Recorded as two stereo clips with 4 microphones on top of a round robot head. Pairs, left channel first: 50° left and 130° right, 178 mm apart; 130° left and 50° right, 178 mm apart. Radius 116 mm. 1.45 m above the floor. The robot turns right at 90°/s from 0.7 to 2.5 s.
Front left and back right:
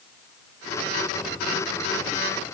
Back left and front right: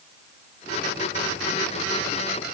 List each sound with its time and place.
Only background noise.